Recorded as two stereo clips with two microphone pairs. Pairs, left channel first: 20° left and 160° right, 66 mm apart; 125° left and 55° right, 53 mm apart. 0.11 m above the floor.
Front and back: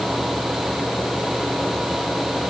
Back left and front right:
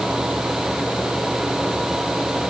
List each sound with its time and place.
Only background noise.